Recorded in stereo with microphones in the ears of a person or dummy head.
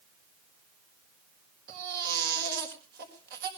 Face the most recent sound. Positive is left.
turn(degrees=-55)  # may be behind; listen again after turning